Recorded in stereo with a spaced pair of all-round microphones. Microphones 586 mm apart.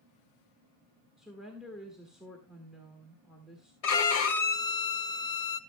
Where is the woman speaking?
Centre (ahead or behind), 1.8 m.